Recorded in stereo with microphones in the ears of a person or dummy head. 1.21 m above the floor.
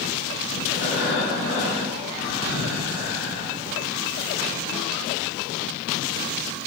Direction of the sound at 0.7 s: 70° left (ahead or behind).